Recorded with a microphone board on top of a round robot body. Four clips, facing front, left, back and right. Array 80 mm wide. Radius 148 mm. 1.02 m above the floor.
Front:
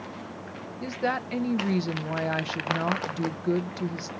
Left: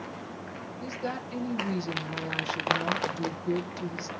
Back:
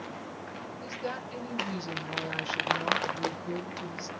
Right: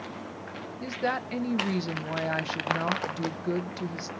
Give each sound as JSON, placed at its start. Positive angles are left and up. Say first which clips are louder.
{"t": 0.8, "sound": "a woman speaking", "louder": "right 5 dB, front 9 dB", "azimuth_deg": -45, "distance_m": 0.7}